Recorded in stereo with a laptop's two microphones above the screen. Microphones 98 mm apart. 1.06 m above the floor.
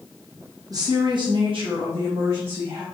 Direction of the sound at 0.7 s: 35° right (ahead or behind).